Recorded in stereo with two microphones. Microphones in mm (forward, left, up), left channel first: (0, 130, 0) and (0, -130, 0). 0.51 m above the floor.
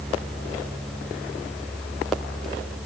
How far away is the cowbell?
I don't hear a cowbell.